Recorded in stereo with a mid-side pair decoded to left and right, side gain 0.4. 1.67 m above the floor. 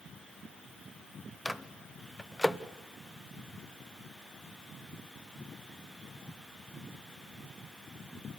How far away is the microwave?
About 0.9 m.